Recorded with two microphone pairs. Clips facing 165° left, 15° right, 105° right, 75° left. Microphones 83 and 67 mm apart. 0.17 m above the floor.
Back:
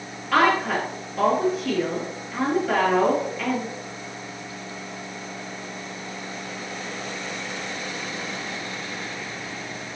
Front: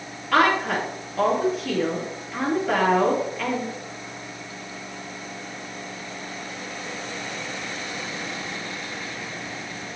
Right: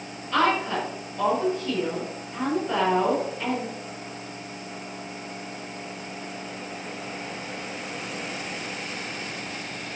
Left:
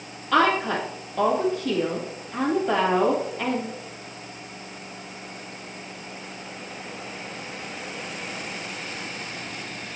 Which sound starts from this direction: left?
A woman speaking, at 0.3 s.